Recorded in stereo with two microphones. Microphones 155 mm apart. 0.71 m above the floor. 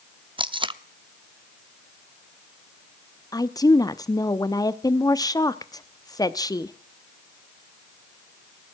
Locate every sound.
0.4 s tape being pulled: 35° right (ahead or behind), 0.7 m
3.3 s a woman speaking: 25° left (ahead or behind), 0.8 m